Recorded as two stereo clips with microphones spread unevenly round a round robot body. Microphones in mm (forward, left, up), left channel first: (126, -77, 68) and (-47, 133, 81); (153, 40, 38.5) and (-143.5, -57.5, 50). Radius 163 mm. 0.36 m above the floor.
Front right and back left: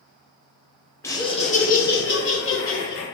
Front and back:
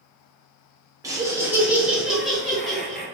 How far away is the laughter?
About 0.8 m.